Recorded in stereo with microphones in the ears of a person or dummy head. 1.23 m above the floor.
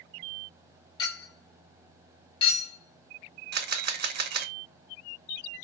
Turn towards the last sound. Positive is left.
turn(degrees=-50)  # may be behind; listen again after turning